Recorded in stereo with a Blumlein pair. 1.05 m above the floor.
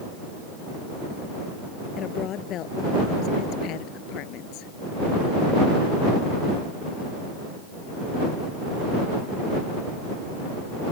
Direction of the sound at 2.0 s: 30° left.